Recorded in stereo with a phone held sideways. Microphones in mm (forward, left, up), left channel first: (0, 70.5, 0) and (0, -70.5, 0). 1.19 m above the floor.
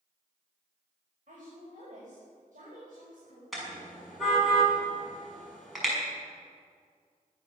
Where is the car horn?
Centre (ahead or behind), 6.5 m.